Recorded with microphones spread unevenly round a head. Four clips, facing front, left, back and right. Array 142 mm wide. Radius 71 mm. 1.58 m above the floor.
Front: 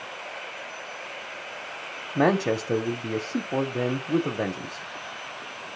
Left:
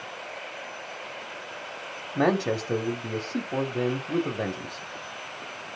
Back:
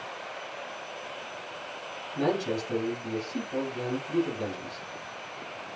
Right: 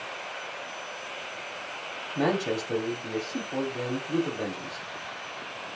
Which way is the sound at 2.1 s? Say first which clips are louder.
Left 3 dB, front 6 dB; 20° left.